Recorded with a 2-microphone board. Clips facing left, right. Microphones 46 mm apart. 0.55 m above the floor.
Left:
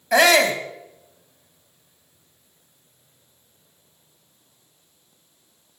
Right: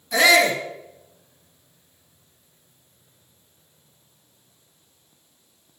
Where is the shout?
75° left (ahead or behind), 3.5 m.